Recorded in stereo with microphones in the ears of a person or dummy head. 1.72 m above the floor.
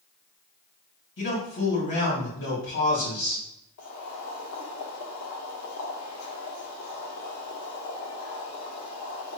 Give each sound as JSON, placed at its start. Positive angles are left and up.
{"t": 1.2, "sound": "a man speaking", "side_deg": 55, "distance_m": 2.5}
{"t": 3.8, "sound": "boiling", "side_deg": 85, "distance_m": 1.4}